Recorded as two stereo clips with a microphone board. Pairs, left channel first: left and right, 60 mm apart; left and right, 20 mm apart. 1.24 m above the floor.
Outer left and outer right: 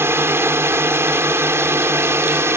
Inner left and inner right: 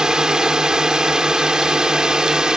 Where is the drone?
45° right (ahead or behind).